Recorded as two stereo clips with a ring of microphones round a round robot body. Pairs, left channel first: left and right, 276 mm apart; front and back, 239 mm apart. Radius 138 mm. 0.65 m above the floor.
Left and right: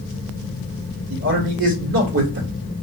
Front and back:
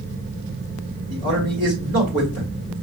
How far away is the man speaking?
About 1.9 m.